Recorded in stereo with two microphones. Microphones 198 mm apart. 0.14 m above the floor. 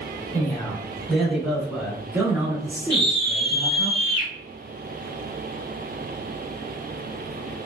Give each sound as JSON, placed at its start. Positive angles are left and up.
{"t": 0.3, "sound": "a man speaking", "side_deg": 10, "distance_m": 1.7}
{"t": 2.9, "sound": "a scream", "side_deg": -25, "distance_m": 1.5}